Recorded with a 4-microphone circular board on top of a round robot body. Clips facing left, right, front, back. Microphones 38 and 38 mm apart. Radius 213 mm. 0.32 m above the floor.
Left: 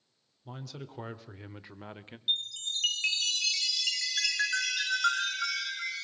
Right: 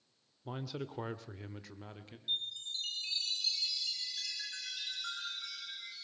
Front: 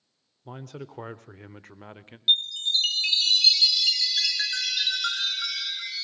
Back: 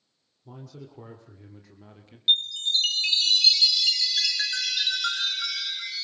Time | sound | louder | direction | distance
0.5 | a man speaking | right 3 dB, front 5 dB | 20° right | 1.6 m
2.3 | a chime | left 6 dB, even | 85° left | 0.9 m